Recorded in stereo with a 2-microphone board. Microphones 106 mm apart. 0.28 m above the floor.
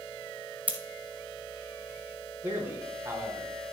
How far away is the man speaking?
About 3 m.